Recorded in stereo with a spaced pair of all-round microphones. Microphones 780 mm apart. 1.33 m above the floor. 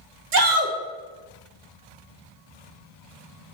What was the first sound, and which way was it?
A shout, 60° right (ahead or behind).